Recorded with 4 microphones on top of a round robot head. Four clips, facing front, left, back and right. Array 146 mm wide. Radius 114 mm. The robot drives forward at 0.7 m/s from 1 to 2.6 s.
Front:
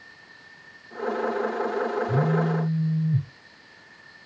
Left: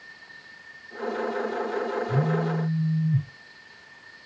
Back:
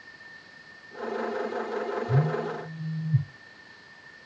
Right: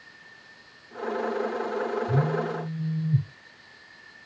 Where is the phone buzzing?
90° right, 4 m; by 3.3 s 95° right, 4 m.